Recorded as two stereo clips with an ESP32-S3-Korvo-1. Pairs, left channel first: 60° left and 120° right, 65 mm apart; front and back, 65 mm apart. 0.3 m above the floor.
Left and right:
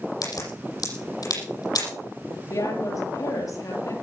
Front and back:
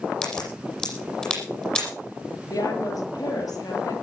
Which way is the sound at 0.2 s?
75° left.